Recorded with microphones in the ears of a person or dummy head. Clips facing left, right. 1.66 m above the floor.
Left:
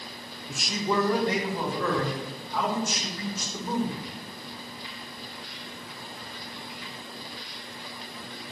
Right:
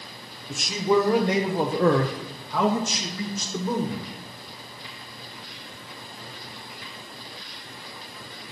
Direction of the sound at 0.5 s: Centre (ahead or behind).